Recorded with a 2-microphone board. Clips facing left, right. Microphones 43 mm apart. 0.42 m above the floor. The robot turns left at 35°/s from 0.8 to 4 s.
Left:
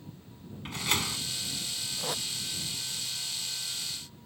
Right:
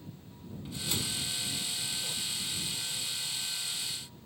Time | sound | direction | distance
0.7 | a door slam | 65° left (ahead or behind) | ?
2.0 | tape being pulled | 85° left | ?